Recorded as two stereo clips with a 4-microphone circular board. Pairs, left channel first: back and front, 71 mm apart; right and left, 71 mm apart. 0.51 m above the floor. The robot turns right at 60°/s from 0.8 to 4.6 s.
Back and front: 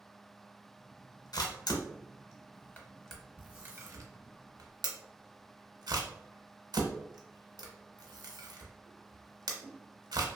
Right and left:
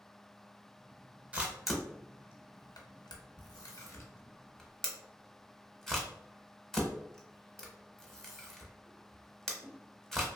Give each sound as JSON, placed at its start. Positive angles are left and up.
{"t": 1.3, "sound": "a camera shutter", "azimuth_deg": 160, "distance_m": 0.7}